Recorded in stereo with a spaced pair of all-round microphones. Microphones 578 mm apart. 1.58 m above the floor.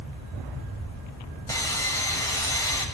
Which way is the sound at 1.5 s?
5° left (ahead or behind).